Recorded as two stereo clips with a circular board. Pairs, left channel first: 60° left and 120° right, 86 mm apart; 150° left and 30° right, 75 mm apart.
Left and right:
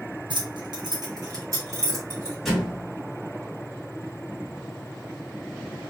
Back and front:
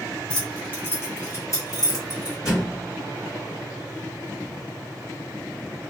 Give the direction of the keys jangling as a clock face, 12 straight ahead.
4 o'clock.